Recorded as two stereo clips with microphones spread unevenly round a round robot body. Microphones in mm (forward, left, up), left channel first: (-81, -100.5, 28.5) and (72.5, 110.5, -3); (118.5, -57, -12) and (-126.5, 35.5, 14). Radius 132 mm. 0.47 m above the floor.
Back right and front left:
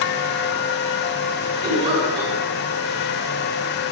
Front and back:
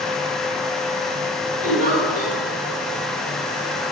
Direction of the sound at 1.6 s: 120° left.